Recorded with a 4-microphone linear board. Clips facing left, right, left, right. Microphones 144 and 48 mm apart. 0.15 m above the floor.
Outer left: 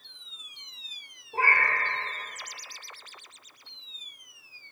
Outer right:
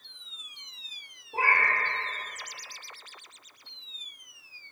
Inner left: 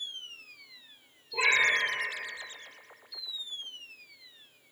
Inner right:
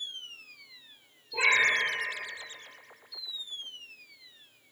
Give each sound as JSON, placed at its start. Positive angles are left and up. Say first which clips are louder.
{"t": 1.3, "sound": "a cat meowing", "louder": "even, inner right 1 dB", "side_deg": -5, "distance_m": 0.5}